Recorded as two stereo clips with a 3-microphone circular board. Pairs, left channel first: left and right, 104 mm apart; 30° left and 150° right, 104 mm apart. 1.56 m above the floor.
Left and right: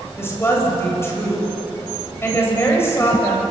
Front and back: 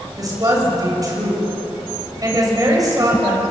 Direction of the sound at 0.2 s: 155° left.